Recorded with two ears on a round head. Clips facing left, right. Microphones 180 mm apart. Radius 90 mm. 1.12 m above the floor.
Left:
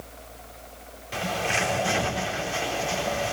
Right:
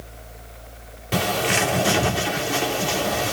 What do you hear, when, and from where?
1.1 s a bird: 70° right (ahead or behind), 3.5 m